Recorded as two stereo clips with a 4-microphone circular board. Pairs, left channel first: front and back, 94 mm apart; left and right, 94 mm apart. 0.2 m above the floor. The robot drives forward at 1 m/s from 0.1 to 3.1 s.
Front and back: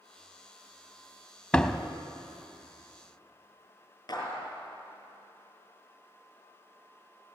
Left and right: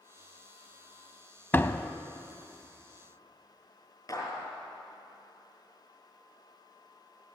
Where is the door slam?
60° left, 0.8 m; by 1.9 s 120° left, 0.8 m.